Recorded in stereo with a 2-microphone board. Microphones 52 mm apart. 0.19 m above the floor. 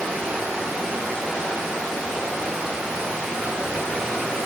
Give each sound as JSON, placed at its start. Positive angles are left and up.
{"t": 0.0, "sound": "running water", "side_deg": -10, "distance_m": 1.3}